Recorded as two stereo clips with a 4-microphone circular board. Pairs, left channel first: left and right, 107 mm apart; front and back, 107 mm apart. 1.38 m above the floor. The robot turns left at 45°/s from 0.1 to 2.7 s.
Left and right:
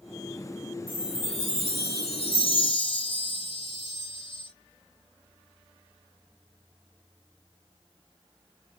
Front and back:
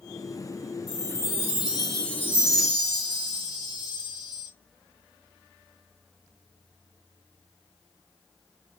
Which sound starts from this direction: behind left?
A chime, at 0.9 s.